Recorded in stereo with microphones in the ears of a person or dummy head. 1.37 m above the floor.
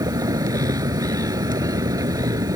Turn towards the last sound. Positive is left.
turn(degrees=-25)  # may be behind; listen again after turning